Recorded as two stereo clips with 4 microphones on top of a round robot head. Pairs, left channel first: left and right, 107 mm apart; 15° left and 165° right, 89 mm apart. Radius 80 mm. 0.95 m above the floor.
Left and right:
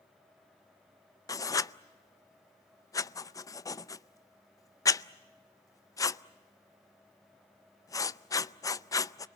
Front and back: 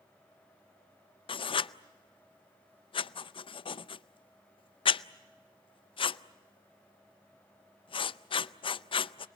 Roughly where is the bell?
I don't hear a bell.